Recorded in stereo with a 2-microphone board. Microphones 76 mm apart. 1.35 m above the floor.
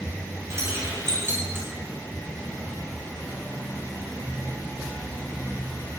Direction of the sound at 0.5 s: 40° right (ahead or behind).